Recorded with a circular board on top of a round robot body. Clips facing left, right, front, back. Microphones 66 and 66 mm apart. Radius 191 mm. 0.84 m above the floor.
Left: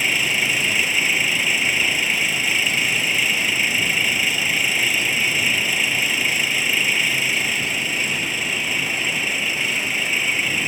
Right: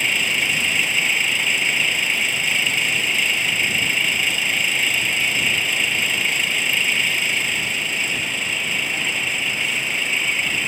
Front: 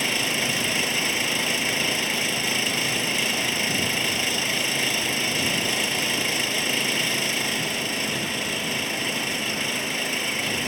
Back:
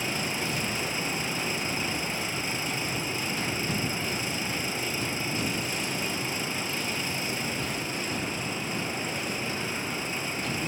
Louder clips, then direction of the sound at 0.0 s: Even, front 5 dB; 5° left.